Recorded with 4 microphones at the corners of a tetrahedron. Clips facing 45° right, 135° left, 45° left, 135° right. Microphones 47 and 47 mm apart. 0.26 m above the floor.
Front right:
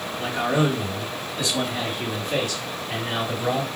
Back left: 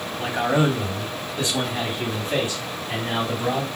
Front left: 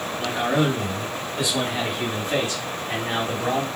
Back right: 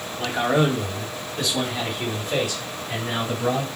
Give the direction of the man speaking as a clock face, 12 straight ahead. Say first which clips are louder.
Back left 1 dB, back right 2 dB; 6 o'clock.